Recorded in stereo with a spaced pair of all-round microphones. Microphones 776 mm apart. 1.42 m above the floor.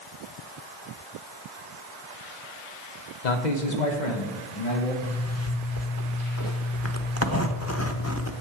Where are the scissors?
No scissors in this recording.